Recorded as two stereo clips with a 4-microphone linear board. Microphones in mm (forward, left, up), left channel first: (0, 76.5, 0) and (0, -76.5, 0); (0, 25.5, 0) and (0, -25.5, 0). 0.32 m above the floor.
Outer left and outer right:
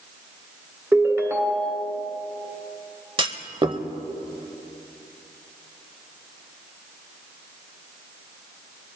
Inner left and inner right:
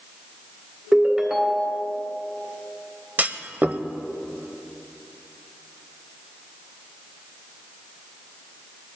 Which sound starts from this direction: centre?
A ringtone, at 0.9 s.